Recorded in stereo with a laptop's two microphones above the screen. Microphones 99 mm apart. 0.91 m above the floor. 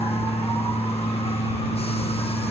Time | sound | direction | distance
0.0 | a machine running | 85° left | ?